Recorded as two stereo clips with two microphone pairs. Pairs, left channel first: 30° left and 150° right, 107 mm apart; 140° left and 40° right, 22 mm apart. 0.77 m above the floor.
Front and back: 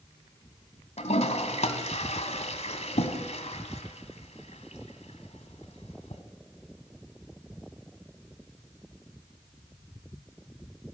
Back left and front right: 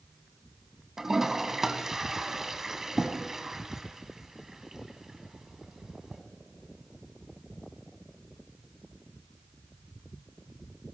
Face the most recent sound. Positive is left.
turn(degrees=35)